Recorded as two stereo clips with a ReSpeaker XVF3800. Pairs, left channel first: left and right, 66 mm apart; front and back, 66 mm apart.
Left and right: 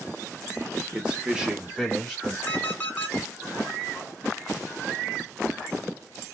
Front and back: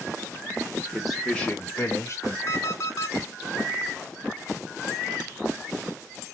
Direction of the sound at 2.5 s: 30° left.